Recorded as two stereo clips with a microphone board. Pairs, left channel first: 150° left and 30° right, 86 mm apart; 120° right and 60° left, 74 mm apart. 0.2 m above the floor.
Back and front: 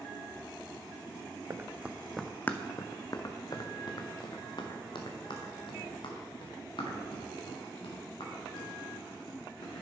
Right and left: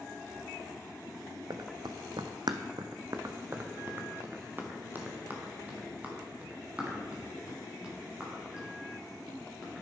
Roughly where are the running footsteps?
Ahead left.